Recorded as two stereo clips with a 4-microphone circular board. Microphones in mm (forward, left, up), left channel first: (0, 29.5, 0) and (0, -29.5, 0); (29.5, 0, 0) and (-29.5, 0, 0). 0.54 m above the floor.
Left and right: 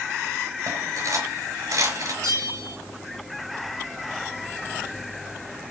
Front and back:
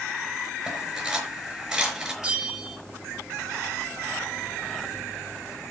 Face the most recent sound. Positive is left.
turn(degrees=-110)